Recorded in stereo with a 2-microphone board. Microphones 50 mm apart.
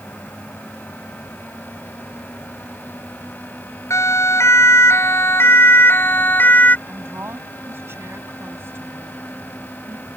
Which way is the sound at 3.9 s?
70° left (ahead or behind).